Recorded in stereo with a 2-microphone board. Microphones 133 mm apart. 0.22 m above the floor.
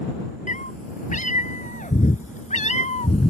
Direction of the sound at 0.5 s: 75° left (ahead or behind).